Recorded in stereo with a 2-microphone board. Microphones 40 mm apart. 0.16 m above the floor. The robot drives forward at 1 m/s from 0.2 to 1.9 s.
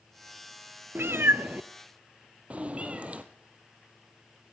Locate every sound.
0.9 s a cat meowing: 65° right (ahead or behind), 0.5 m; by 3.2 s 35° right (ahead or behind), 0.9 m